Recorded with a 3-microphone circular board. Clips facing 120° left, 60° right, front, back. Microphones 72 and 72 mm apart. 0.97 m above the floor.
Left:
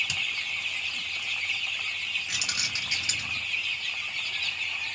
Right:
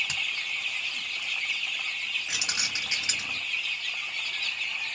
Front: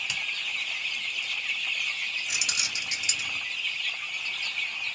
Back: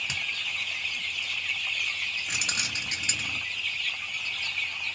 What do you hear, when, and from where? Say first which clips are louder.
0.1 s a finger snap: even, even; 115° right, 1.5 m
2.3 s keys jangling: even, back 1 dB; 125° right, 0.8 m